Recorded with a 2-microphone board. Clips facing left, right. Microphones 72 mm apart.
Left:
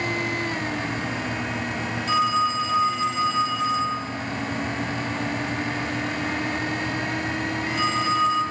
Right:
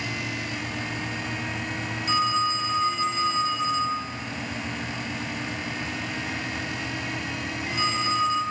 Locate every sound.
2.1 s a phone ringing: 10° right (ahead or behind), 6 m